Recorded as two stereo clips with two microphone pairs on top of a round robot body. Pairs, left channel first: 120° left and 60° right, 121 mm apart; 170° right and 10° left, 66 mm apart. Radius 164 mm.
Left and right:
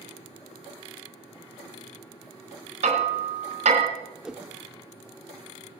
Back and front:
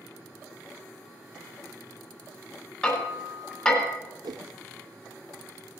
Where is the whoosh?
25° left, 0.7 m.